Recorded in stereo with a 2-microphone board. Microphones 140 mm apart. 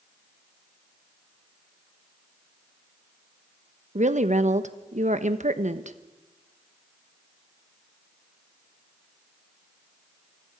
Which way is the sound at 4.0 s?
60° right (ahead or behind).